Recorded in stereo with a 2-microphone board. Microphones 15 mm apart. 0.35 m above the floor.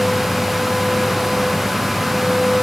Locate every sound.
Only background noise.